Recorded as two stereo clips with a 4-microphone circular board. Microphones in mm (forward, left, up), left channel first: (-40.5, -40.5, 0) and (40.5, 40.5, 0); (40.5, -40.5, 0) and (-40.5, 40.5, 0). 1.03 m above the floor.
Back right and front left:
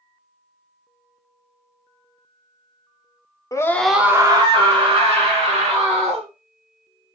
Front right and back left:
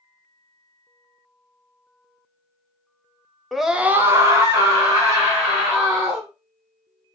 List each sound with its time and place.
3.5 s a scream: 135° right, 0.6 m; by 6.3 s 75° left, 2.5 m